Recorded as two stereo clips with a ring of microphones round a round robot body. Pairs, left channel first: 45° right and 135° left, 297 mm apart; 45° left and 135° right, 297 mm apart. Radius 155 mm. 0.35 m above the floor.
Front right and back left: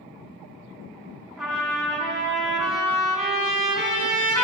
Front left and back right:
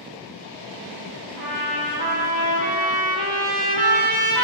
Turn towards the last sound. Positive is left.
turn(degrees=-135)